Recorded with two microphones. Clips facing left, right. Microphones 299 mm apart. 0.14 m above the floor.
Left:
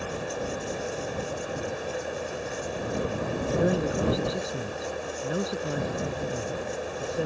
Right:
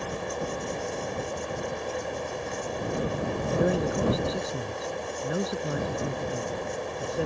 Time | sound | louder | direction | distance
3.6 | a man speaking | even | centre (ahead or behind) | ?